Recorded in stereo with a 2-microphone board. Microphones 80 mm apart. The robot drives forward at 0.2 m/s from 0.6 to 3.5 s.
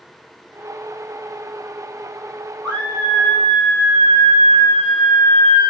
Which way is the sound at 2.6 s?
30° left (ahead or behind).